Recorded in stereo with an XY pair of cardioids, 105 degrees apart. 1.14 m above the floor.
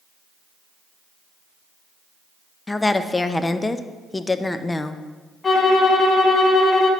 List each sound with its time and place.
2.7 s a woman speaking: 20° left, 0.5 m
5.4 s a violin: 30° left, 1.2 m